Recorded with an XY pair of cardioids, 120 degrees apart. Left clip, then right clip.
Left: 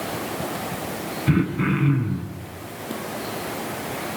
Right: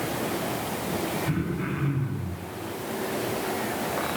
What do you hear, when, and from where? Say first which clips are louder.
1.3 s throat clearing: left 7 dB; 55° left, 9.5 m